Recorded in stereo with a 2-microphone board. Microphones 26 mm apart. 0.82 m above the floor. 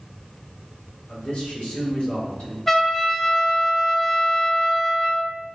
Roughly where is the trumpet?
Centre.